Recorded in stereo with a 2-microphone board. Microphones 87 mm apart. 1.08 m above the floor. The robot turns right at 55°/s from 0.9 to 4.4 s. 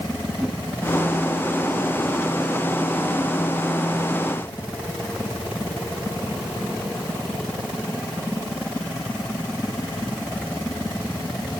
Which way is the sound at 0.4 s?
Centre (ahead or behind).